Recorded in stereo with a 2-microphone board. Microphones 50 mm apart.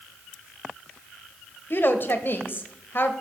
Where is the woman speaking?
45° left (ahead or behind), 1.1 m.